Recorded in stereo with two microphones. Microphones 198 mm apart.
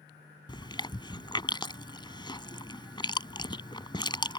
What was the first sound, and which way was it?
Chewing, 25° left (ahead or behind).